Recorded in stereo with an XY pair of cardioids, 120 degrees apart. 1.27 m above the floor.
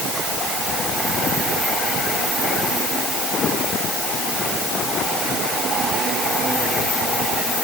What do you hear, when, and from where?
Only background noise.